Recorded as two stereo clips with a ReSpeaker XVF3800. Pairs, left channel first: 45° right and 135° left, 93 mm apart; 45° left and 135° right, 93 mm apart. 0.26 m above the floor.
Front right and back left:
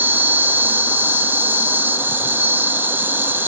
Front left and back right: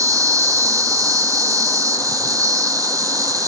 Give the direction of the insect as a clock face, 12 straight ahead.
6 o'clock.